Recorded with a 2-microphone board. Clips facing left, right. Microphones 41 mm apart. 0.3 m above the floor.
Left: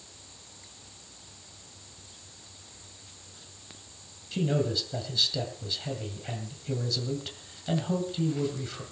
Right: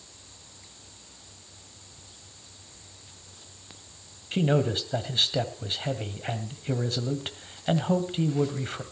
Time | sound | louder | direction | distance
4.3 | a man speaking | right 3 dB | 45° right (ahead or behind) | 2 m